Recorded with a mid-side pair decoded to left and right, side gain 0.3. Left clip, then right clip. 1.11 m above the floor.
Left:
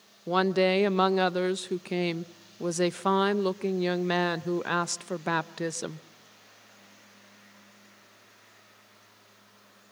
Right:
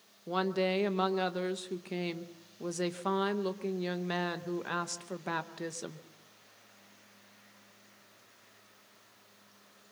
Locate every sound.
0.3 s a woman speaking: 70° left, 0.8 m